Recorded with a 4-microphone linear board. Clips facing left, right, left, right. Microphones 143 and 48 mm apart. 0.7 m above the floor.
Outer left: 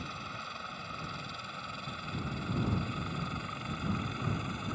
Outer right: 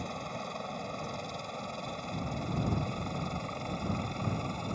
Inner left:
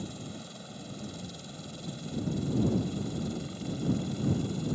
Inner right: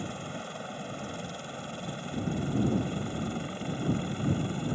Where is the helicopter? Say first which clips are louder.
Outer right 6 dB, inner right 4 dB; 40° right (ahead or behind); by 4.8 s 35° right (ahead or behind).